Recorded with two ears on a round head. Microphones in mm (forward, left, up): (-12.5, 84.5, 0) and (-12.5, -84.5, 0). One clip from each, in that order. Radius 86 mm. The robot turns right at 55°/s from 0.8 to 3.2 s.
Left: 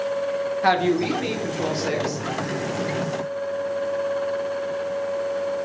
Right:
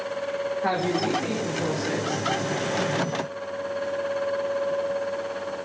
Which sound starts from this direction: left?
A woman speaking, at 0.6 s.